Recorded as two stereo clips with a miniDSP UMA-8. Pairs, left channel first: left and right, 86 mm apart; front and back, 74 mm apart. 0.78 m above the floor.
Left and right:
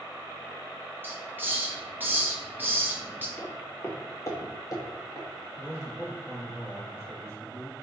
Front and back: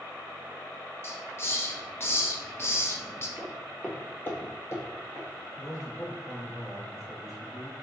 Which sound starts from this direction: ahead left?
A man speaking, at 5.6 s.